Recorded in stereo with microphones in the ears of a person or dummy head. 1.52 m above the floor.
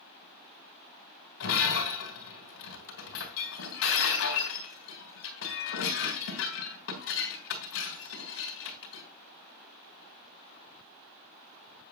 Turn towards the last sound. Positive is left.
turn(degrees=70)  # may be behind; listen again after turning